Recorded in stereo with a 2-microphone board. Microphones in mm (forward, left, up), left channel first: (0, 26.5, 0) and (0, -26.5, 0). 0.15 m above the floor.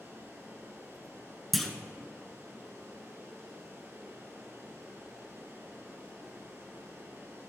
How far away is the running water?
About 2.5 m.